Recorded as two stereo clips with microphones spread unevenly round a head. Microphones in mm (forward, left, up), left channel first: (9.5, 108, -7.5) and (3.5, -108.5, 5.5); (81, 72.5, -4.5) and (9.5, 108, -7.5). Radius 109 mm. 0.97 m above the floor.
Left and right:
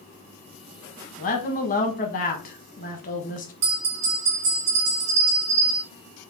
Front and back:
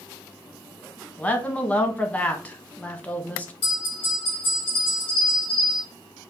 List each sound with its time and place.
1.2 s a woman speaking: 45° left, 1.1 m
3.6 s a bell: 75° right, 2 m